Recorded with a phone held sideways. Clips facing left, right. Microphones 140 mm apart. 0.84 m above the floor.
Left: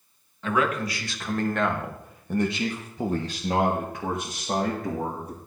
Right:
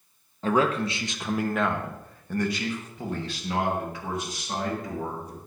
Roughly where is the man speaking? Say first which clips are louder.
Right 2 dB; right.